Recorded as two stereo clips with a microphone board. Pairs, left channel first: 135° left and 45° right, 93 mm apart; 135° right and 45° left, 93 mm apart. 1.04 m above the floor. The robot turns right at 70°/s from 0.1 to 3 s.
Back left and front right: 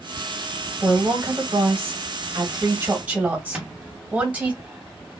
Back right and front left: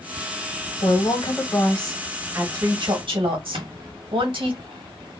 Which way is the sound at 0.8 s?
125° right.